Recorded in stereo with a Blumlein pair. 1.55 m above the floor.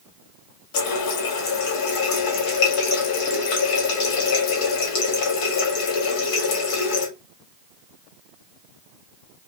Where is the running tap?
45° left, 1.9 m.